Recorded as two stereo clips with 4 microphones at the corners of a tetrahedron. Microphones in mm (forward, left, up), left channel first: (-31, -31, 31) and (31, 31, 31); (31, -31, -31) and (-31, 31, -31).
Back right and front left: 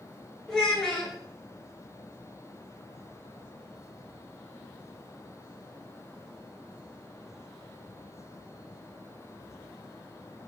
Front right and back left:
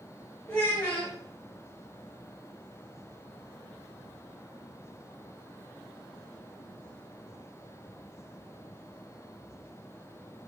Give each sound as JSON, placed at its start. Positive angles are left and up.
{"t": 0.5, "sound": "a child speaking", "azimuth_deg": -60, "distance_m": 0.7}